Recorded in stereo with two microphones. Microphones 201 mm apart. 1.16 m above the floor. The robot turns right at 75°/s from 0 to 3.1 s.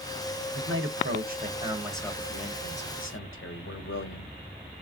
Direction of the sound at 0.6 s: 105° right.